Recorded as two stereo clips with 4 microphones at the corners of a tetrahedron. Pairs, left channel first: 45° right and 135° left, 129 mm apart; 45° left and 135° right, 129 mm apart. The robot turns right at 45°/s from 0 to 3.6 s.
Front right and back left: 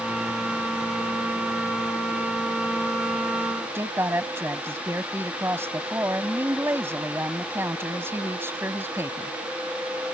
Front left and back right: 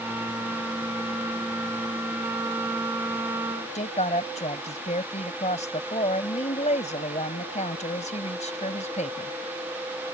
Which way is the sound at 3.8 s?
65° left.